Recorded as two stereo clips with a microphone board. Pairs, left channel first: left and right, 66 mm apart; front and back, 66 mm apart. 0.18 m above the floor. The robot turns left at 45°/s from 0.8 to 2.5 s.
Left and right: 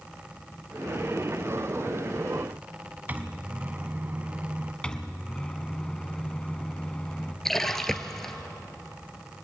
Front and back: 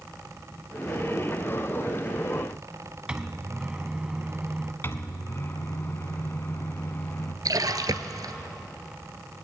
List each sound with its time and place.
3.1 s a microwave: 120° right, 1.0 m
4.8 s a microwave: 20° left, 1.2 m
7.5 s a splash: 175° left, 1.2 m